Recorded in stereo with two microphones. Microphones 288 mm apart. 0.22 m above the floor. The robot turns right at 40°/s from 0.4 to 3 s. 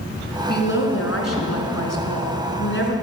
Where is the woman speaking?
40° left, 2.5 m; by 2.9 s 140° left, 2.5 m.